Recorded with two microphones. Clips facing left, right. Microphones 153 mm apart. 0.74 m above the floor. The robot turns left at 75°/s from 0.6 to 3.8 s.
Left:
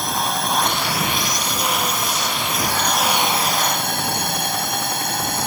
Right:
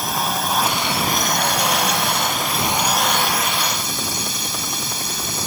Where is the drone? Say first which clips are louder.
Even; straight ahead; by 5.5 s 120° left.